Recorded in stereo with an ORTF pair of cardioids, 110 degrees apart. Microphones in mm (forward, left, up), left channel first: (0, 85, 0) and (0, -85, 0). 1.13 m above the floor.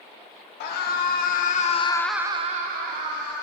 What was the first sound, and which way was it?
A scream, 70° left.